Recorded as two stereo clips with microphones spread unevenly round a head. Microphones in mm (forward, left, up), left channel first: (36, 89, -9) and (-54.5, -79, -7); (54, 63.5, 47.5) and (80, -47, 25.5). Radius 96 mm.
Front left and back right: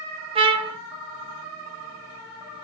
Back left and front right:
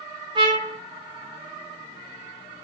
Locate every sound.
0.3 s a trumpet: 115° right, 0.8 m